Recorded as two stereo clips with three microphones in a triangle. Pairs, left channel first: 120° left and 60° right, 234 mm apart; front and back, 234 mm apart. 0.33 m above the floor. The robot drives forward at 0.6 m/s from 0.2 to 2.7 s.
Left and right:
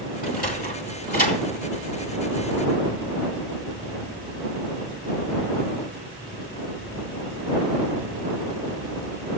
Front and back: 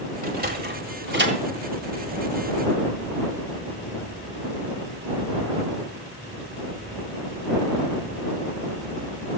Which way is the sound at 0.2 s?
150° left.